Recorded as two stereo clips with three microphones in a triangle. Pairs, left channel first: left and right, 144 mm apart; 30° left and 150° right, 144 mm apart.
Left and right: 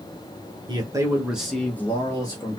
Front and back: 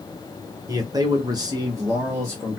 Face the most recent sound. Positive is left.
turn(degrees=145)